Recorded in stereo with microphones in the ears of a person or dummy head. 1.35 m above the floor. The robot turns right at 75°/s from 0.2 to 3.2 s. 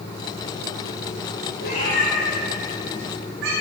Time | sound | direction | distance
1.6 | a cat meowing | 55° left (ahead or behind) | 6.5 m